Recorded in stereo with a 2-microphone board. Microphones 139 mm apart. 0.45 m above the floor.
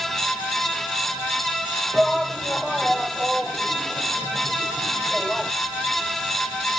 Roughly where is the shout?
Centre.